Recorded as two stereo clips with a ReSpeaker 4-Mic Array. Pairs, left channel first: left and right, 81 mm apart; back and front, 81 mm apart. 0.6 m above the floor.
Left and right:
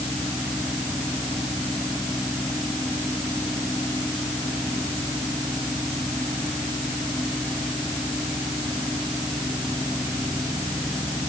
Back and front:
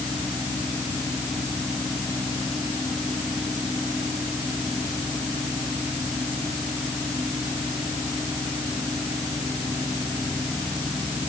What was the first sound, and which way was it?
Only background noise.